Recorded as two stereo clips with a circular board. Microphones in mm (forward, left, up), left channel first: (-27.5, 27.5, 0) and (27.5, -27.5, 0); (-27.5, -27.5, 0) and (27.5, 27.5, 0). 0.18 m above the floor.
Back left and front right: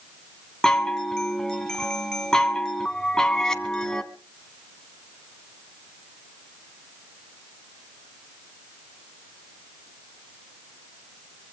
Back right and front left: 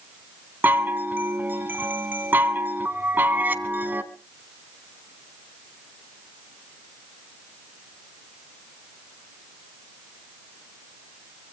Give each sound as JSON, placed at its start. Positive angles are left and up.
{"t": 0.6, "sound": "a chime", "azimuth_deg": 65, "distance_m": 1.6}